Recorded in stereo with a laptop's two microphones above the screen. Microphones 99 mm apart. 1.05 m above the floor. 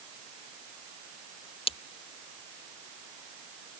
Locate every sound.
1.7 s breaking glass: 70° left (ahead or behind)